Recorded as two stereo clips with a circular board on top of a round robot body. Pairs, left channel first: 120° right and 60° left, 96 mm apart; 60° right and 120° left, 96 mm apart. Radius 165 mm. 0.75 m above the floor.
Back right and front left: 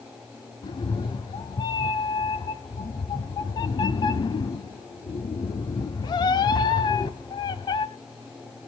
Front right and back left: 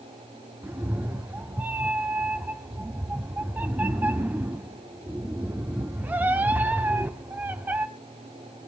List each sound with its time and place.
0.6 s a cat meowing: 170° right, 0.5 m